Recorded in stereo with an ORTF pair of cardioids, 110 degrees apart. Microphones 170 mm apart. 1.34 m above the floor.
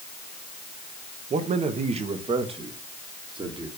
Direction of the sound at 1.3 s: 45° right.